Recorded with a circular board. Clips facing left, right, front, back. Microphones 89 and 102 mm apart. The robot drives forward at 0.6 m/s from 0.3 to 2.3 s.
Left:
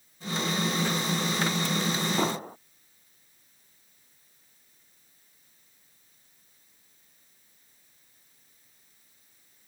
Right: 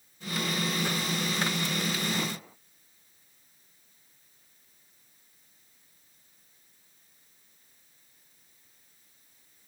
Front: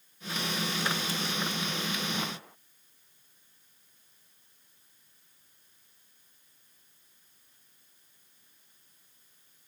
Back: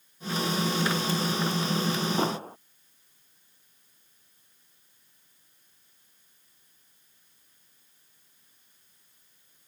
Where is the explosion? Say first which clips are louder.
Left 7 dB, back 9 dB; 135° left.